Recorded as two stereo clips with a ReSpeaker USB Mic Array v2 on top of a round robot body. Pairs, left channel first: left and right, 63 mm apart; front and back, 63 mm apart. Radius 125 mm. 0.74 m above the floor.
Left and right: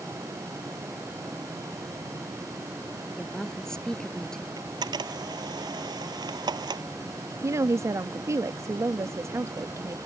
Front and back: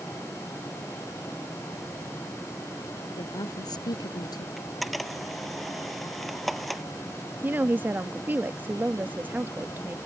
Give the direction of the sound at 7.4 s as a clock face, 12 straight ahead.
4 o'clock.